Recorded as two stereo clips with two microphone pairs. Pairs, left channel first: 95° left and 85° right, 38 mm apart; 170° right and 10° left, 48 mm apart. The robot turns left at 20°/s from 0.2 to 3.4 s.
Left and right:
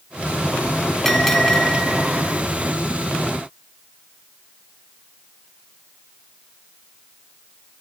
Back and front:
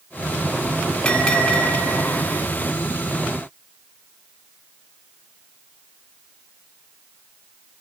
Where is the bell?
165° left, 1.5 m; by 2.4 s 140° left, 1.5 m.